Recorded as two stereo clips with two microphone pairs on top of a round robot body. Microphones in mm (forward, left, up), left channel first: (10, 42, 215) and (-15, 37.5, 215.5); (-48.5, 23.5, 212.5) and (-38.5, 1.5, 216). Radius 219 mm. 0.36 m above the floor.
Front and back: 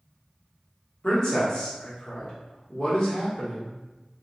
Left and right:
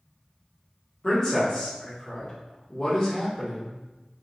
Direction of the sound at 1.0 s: 75° left.